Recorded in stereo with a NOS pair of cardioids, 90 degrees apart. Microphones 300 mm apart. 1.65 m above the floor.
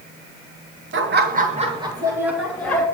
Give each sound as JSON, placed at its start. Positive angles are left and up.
{"t": 0.9, "sound": "laughter", "azimuth_deg": -45, "distance_m": 1.5}